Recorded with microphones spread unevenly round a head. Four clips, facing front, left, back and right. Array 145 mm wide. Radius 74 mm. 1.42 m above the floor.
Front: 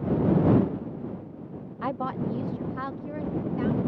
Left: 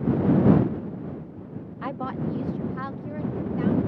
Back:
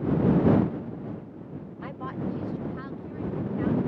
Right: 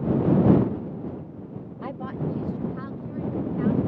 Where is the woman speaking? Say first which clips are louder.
Left 2 dB, front 5 dB; 15° right; by 3.9 s 20° left.